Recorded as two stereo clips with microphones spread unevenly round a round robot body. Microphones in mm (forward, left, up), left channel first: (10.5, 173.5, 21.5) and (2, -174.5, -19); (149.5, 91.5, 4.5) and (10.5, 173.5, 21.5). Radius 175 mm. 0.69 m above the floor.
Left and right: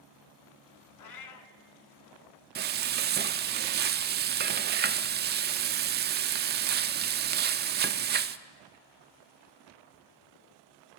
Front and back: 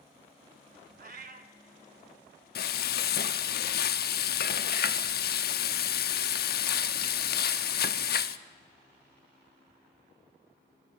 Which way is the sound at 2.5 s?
30° right.